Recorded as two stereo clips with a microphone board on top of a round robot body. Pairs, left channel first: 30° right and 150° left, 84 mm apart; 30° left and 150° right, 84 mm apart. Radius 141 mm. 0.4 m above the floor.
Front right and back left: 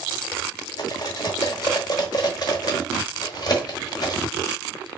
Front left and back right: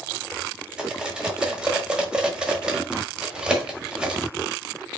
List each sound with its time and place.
0.8 s cutlery clinking: 70° right, 1.3 m